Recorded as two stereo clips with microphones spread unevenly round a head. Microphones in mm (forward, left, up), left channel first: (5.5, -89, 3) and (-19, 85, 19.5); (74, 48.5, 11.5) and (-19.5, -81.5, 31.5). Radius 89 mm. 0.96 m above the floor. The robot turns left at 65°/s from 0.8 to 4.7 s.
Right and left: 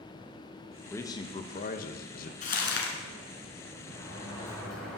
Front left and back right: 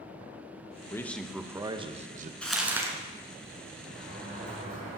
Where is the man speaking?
10° right, 0.8 m; by 2.3 s 100° right, 0.8 m.